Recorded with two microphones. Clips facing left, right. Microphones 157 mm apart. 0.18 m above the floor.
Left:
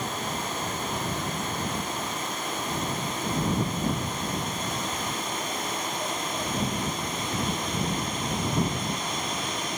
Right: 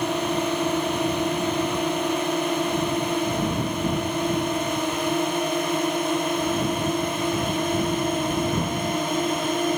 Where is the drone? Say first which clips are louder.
Right 9 dB; 75° right (ahead or behind); by 9.8 s 60° right (ahead or behind).